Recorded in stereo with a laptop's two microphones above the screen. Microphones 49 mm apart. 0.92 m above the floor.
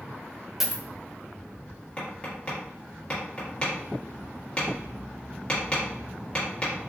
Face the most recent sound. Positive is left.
turn(degrees=25)  # may be behind; listen again after turning